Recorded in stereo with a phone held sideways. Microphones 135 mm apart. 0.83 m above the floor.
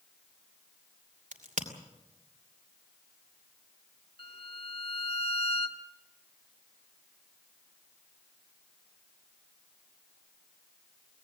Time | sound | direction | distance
1.3 | a crack | 75° right (ahead or behind) | 2.5 m
4.2 | a violin | 40° left (ahead or behind) | 1.8 m